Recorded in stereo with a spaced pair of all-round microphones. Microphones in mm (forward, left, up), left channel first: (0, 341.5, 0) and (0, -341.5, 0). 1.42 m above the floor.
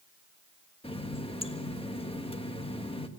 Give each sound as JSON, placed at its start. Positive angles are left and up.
{"t": 0.8, "sound": "a running tap", "side_deg": 10, "distance_m": 1.2}